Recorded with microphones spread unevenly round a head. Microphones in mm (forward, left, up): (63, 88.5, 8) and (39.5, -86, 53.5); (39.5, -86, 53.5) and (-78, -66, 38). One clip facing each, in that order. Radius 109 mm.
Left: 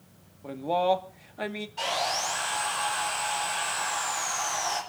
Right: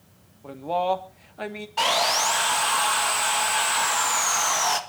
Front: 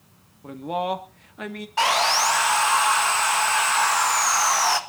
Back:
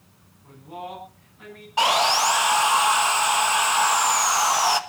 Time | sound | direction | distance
0.4 | a man speaking | 5° left | 1.8 m
1.8 | sawing | 125° right | 1.5 m